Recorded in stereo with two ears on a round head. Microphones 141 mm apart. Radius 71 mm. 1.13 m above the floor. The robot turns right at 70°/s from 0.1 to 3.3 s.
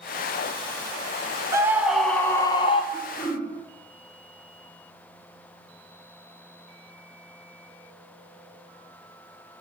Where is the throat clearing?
50° left (ahead or behind), 2.5 m; by 3.5 s 20° left (ahead or behind), 2.5 m.